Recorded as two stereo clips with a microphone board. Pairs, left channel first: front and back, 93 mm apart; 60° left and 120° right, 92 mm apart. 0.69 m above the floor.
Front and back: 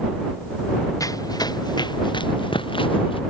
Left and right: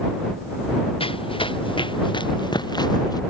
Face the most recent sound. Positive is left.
turn(degrees=15)